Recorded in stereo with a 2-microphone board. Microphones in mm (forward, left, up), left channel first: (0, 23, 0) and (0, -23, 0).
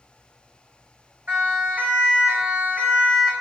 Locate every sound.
1.3 s a siren: 45° right (ahead or behind), 9.5 m; by 3.3 s 35° right (ahead or behind), 9 m